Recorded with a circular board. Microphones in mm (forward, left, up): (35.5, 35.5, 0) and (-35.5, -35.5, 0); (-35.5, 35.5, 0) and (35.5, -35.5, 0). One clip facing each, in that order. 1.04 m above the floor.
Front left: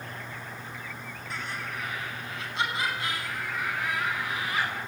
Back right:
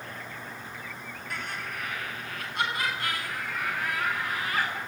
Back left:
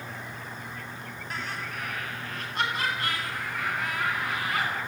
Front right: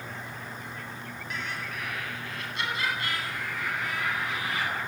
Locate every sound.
1.3 s laughter: 170° right, 10 m; by 4.7 s straight behind, 13.5 m